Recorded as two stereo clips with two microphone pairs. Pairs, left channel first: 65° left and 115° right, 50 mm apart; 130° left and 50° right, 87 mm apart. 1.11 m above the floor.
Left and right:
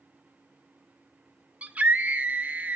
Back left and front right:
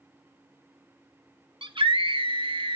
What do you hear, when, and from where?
1.6 s a scream: 50° right, 1.0 m